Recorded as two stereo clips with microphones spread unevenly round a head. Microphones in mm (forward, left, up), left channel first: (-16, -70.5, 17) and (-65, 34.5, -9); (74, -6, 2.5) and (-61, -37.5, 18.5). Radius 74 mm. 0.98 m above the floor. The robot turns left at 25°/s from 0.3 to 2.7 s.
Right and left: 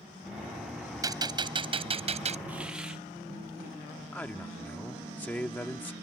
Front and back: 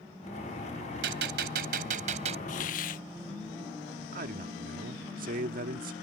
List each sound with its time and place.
1.0 s a gunshot: 175° left; by 2.4 s 140° left
2.5 s a hiss: 40° left; by 3.0 s 35° left
4.1 s a man speaking: 140° right